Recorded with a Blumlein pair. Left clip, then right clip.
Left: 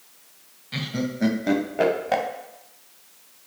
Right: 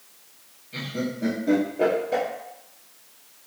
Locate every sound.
0.7 s laughter: 40° left, 0.7 m